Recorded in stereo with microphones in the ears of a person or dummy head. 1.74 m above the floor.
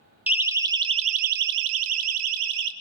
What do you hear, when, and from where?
0.3 s a siren: 5° right (ahead or behind), 2.5 m; by 2.7 s 65° right (ahead or behind), 2.5 m